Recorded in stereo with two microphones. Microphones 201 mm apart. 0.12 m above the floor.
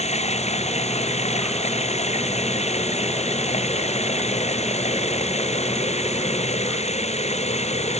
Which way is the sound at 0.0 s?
30° left (ahead or behind).